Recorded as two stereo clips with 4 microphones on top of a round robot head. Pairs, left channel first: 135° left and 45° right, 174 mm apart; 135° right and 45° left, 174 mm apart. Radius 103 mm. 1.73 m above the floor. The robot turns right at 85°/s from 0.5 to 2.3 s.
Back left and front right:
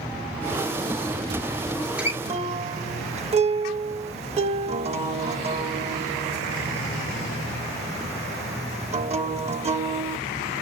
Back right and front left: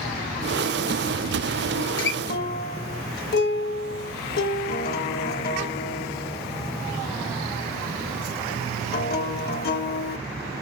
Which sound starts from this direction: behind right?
A guitar, at 1.8 s.